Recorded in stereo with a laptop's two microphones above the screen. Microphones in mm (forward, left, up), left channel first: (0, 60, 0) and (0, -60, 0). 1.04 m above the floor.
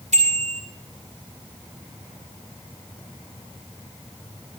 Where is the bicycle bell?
75° right (ahead or behind), 5 m.